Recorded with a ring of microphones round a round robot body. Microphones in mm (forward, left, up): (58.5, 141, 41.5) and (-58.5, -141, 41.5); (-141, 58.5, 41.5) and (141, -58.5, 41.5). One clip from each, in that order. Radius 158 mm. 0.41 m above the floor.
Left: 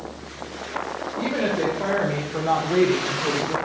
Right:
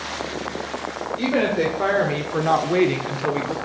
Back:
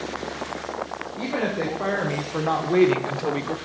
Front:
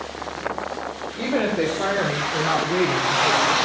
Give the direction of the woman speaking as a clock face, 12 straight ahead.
3 o'clock.